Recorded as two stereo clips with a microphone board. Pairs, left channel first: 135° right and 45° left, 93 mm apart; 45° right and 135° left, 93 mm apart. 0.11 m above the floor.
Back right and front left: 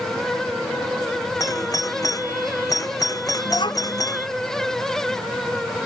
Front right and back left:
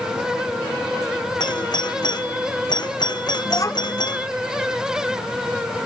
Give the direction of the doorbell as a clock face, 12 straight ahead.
3 o'clock.